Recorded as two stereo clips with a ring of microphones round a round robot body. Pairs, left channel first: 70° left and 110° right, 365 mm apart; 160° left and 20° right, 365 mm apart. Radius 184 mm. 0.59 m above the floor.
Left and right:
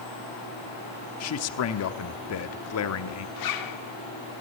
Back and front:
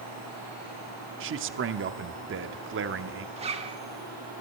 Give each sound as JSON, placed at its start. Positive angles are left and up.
{"t": 1.2, "sound": "a man speaking", "azimuth_deg": 30, "distance_m": 1.0}
{"t": 3.4, "sound": "a zipper", "azimuth_deg": 50, "distance_m": 1.4}